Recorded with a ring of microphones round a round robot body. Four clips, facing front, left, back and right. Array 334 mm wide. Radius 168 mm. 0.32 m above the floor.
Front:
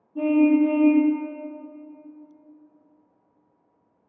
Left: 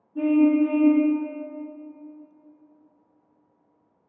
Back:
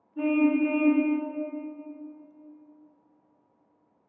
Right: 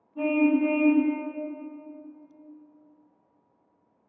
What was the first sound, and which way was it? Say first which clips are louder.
A car horn: left 4 dB, front 5 dB; 30° left.